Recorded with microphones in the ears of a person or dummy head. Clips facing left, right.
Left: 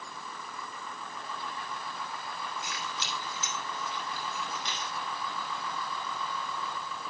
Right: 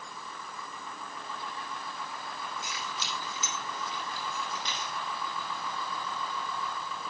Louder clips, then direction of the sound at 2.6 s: Even; 90° right.